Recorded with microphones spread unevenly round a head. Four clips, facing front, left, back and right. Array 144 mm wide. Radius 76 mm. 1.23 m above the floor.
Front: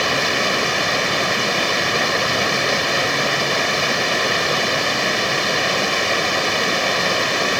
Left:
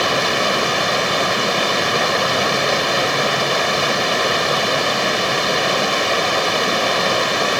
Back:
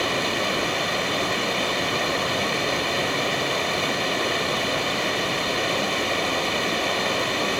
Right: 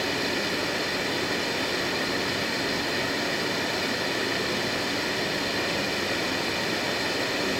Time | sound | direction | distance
0.0 | running water | 65° left | ?